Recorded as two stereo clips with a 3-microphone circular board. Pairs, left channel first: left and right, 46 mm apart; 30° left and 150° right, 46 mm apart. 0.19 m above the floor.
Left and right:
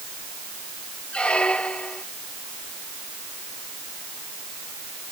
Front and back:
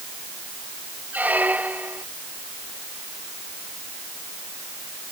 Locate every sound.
1.1 s a squeak: 160° left